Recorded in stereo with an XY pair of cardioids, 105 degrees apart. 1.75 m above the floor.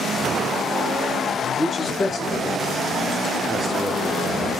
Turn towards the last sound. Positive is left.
turn(degrees=-40)